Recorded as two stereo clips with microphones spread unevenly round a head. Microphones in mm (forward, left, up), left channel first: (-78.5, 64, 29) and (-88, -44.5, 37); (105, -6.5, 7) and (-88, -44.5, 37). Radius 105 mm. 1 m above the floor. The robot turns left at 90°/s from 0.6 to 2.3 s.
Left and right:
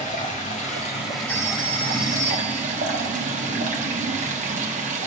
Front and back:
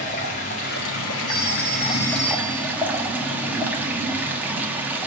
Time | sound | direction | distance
0.0 | running water | 65° left | 1.3 m
1.3 | a phone ringing | 20° left | 2.5 m